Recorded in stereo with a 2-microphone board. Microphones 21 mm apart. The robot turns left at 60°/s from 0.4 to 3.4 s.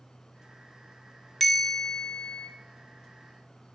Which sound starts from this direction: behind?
A bell, at 1.4 s.